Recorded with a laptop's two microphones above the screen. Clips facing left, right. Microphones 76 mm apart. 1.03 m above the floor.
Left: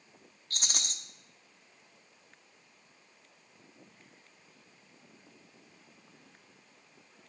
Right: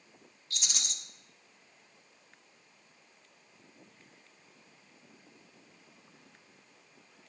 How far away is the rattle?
About 0.9 m.